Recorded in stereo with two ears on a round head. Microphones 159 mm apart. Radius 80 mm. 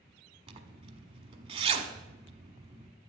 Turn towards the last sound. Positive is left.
turn(degrees=-30)  # may be behind; listen again after turning